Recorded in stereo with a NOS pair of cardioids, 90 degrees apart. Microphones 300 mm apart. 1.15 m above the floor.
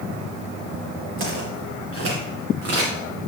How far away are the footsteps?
About 5.5 m.